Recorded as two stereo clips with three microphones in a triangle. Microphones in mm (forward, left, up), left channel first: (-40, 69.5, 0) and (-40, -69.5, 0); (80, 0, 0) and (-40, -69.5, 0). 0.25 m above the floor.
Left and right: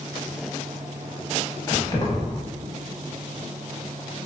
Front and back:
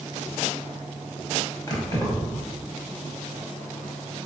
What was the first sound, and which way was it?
Keys jangling, 60° left.